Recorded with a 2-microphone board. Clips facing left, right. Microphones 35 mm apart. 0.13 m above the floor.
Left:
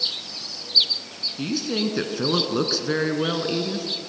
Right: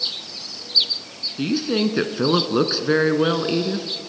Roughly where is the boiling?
No boiling in this recording.